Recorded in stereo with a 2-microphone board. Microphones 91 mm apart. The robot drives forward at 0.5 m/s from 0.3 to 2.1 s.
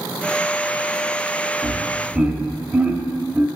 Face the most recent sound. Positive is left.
turn(degrees=-15)  # may be behind; listen again after turning